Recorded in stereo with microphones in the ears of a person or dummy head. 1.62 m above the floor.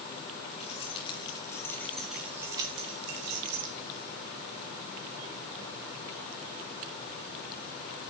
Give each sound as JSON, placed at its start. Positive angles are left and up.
{"t": 0.6, "sound": "keys jangling", "side_deg": 30, "distance_m": 2.0}